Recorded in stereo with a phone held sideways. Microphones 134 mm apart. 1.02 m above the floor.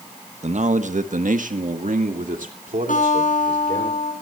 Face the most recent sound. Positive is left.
turn(degrees=80)